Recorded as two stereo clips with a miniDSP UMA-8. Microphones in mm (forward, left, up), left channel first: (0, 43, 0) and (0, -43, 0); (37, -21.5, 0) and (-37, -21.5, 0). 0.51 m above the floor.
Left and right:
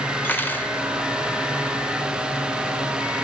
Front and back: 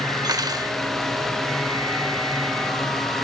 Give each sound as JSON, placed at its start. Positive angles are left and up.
{"t": 0.2, "sound": "cutlery clinking", "azimuth_deg": 155, "distance_m": 1.0}